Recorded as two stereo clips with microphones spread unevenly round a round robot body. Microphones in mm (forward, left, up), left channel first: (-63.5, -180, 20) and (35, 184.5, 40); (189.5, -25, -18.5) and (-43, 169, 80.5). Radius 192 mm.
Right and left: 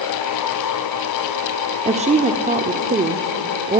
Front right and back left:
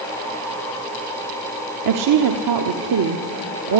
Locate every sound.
1.9 s a woman speaking: 145° left, 1.4 m